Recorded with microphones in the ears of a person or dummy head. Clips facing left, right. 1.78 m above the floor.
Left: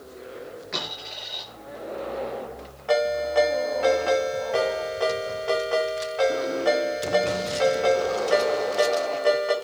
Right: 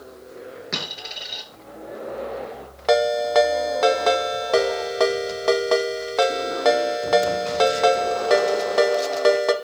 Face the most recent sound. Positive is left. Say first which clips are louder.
# right 4 dB
turn(degrees=-70)  # may be behind; listen again after turning